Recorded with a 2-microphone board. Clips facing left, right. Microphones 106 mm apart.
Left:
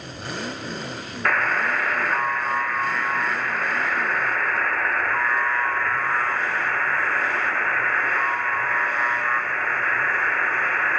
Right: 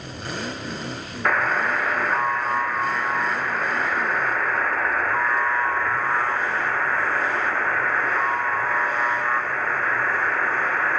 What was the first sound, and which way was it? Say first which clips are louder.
A buzzer: right 1 dB; 10° right (ahead or behind).